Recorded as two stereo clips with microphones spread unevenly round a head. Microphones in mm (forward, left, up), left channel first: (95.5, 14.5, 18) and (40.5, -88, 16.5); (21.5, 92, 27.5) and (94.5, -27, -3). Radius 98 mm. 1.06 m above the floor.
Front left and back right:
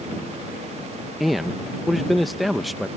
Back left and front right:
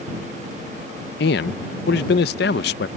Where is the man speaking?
150° left.